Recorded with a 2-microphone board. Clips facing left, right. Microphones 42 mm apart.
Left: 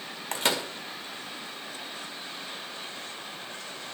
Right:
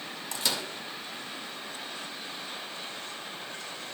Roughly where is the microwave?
Left.